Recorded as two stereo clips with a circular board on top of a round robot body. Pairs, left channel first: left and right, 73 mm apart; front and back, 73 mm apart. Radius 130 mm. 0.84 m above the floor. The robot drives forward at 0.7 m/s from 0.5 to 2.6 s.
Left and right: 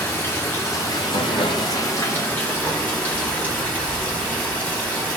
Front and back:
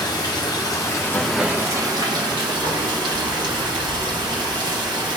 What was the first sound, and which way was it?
Running water, 30° left.